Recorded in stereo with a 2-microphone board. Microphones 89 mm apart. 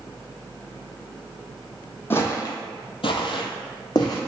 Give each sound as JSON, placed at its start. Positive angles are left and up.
{"t": 2.1, "sound": "footsteps", "side_deg": 25, "distance_m": 0.7}